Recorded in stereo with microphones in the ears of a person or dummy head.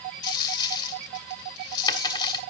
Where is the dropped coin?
30° left (ahead or behind), 1.6 m.